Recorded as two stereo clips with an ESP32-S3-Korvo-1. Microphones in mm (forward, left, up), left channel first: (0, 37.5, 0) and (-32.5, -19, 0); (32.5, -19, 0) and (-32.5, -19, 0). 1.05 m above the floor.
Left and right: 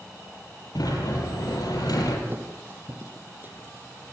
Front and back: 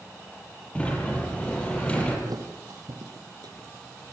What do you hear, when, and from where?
0.8 s a sliding door: 70° left, 8 m
2.3 s a thud: straight behind, 4.5 m